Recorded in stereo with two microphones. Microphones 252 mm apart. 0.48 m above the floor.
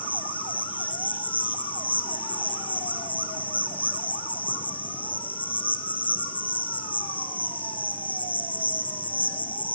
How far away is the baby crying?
I don't hear a baby crying.